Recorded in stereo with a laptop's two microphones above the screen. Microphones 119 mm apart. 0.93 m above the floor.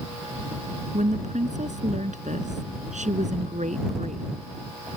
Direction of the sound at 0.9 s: 80° right.